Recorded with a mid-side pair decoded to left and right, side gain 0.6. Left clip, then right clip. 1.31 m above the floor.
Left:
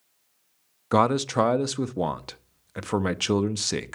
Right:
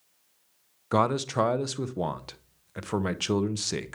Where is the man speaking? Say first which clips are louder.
Left 3 dB; 25° left, 0.6 m.